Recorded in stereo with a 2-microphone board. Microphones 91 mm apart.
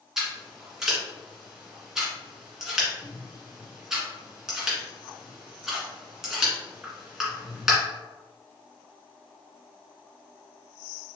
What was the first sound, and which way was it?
Scissors, 5° right (ahead or behind).